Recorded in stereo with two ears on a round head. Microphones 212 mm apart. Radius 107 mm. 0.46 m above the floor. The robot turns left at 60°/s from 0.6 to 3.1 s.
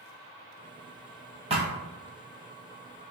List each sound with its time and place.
1.5 s a thud: 25° right (ahead or behind), 0.6 m; by 1.7 s 35° right (ahead or behind), 0.6 m